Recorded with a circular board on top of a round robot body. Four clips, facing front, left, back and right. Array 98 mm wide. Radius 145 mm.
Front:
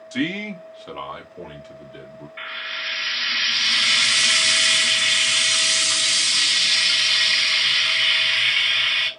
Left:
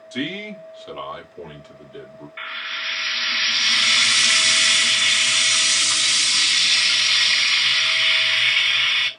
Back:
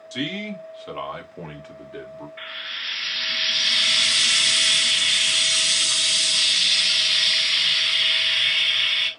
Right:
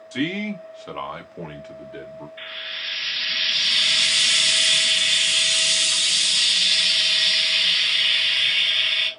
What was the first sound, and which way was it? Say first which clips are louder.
A man speaking: right 3 dB, front 4 dB; 25° right.